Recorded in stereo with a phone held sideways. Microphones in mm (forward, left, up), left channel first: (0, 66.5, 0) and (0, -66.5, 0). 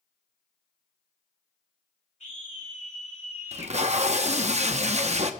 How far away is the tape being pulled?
About 0.8 m.